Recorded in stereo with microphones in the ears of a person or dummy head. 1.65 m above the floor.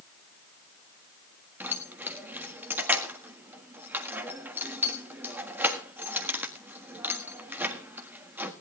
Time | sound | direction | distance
1.6 | keys jangling | 10° right (ahead or behind) | 1.6 m